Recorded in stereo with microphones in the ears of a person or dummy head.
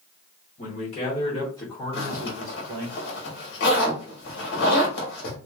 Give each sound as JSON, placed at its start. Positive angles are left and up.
{"t": 0.6, "sound": "a man speaking", "side_deg": 45, "distance_m": 1.2}
{"t": 1.9, "sound": "a zipper", "side_deg": 70, "distance_m": 1.2}